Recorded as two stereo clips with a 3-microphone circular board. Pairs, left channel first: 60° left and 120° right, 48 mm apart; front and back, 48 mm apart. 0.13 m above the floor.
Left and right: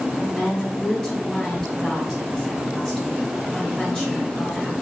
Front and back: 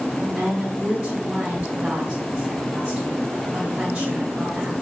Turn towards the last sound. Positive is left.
turn(degrees=120)